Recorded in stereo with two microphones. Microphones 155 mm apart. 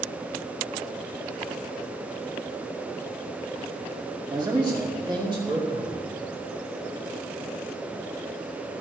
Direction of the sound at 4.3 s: 30° right (ahead or behind).